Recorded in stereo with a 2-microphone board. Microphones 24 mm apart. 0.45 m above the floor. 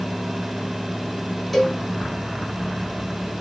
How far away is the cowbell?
About 1.7 m.